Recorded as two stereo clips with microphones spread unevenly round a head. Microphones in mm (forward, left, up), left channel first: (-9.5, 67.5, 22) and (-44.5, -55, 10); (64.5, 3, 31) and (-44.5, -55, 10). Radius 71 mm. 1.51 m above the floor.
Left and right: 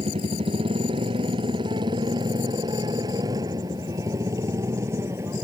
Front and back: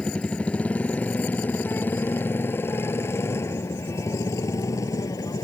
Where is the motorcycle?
50° right; by 5.5 s 35° right.